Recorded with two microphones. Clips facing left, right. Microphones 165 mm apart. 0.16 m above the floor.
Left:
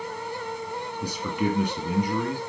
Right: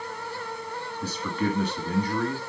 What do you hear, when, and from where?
1.0 s a man speaking: 15° left (ahead or behind), 1.6 m